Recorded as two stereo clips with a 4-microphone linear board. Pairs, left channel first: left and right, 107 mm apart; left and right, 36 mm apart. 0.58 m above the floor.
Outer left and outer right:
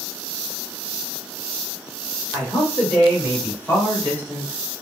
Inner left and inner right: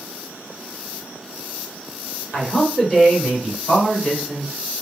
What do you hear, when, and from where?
2.3 s a man speaking: 15° left (ahead or behind), 1.7 m; by 4.5 s 20° left (ahead or behind), 3 m